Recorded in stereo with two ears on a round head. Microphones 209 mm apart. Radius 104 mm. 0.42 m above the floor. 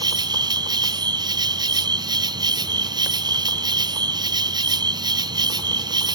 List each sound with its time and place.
0.0 s an insect: 20° right (ahead or behind)